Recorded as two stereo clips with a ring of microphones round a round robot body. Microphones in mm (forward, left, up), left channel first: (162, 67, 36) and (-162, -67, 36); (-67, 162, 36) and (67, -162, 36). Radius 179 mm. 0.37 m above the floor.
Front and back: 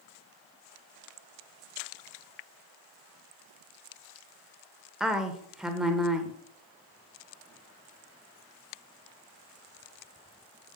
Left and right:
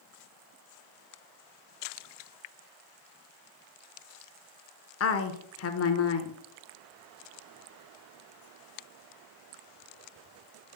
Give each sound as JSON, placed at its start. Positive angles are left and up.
{"t": 5.0, "sound": "a woman speaking", "azimuth_deg": 115, "distance_m": 0.9}